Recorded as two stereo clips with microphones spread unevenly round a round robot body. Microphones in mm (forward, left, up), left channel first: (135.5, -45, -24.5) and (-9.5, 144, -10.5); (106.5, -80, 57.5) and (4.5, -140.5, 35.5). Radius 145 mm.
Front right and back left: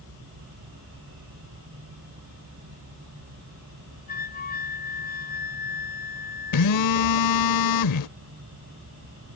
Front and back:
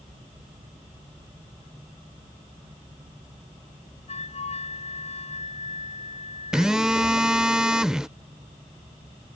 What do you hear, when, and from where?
4.1 s a flute: straight ahead
6.5 s a phone buzzing: 60° right